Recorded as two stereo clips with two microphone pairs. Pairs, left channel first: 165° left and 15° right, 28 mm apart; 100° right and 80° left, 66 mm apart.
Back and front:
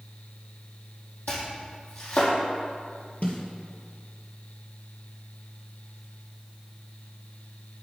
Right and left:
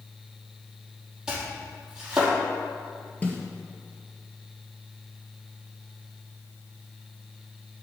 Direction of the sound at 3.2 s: 160° right.